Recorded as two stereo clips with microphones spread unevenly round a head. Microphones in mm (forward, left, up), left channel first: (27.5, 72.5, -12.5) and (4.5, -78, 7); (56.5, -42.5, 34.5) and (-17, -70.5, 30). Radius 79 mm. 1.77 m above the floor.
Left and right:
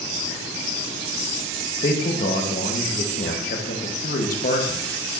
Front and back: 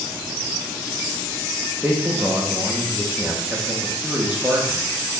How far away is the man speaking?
About 1.2 m.